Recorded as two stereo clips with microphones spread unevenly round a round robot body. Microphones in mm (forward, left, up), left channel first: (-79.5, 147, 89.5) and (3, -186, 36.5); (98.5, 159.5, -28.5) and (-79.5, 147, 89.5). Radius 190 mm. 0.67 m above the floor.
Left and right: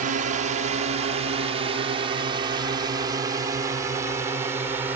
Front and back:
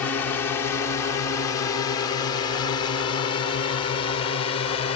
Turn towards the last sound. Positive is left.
turn(degrees=5)